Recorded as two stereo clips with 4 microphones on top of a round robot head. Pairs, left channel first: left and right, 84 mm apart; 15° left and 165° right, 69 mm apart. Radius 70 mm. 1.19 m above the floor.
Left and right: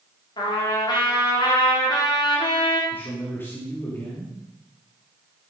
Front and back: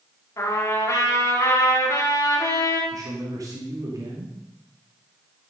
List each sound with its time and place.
0.4 s a trumpet: 60° left, 3.5 m
2.9 s a man speaking: 160° left, 3 m